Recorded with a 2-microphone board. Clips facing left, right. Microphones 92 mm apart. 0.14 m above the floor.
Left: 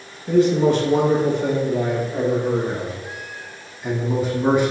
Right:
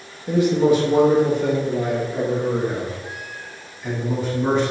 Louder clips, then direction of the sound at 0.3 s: Left 1 dB; 15° right (ahead or behind).